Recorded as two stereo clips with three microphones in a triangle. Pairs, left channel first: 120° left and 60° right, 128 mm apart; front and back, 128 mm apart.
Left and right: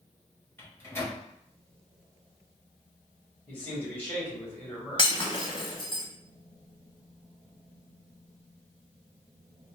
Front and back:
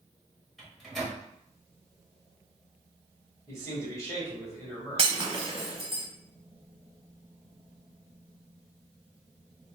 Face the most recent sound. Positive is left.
turn(degrees=155)